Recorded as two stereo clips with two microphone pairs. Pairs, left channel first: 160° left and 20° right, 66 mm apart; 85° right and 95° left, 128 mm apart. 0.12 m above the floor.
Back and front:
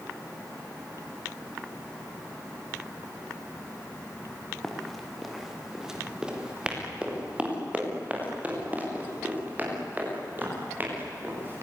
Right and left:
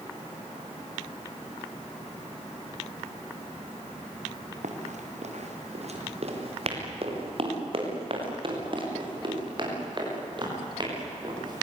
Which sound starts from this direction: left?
Running footsteps, at 4.6 s.